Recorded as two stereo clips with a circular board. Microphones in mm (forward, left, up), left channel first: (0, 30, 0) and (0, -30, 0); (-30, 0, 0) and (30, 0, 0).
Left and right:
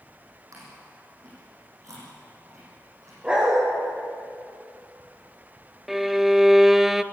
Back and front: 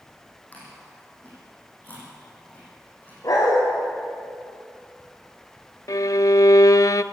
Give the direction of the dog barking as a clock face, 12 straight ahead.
5 o'clock.